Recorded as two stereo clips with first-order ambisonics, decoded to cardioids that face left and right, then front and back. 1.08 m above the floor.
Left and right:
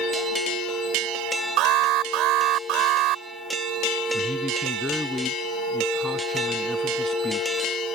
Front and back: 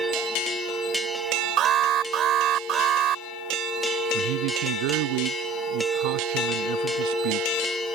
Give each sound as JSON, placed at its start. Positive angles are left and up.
{"t": 1.6, "sound": "an alarm", "azimuth_deg": -125}
{"t": 4.1, "sound": "a man speaking", "azimuth_deg": 175}